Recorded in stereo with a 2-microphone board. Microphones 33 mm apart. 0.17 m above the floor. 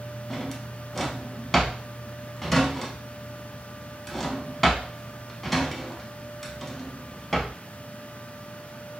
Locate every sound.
0.3 s a drawer: 5° left (ahead or behind), 0.5 m